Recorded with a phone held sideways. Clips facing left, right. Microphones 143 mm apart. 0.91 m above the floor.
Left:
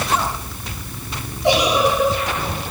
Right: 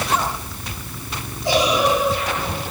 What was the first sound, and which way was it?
A giggle, 70° left (ahead or behind).